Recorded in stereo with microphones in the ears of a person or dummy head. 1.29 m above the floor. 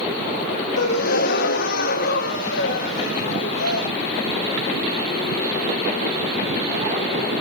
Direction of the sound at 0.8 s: 60° left (ahead or behind).